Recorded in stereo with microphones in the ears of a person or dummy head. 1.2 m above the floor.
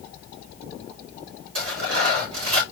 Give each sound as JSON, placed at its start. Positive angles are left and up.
{"t": 1.6, "sound": "tearing paper", "side_deg": -85, "distance_m": 3.5}